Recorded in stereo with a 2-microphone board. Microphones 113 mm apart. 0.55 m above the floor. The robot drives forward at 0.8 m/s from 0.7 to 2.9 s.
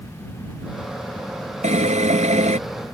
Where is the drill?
85° right; by 2.6 s 80° right.